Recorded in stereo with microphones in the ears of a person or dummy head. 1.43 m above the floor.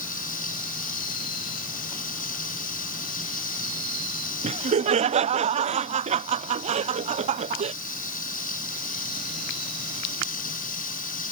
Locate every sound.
0.0 s running water: 40° left (ahead or behind)
4.4 s laughter: 40° right (ahead or behind)